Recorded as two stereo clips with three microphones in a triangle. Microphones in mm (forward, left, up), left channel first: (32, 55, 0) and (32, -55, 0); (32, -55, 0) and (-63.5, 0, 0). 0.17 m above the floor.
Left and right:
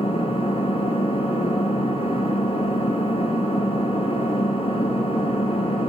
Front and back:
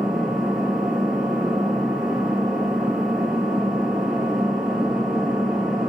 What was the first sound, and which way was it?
An engine running, 65° left.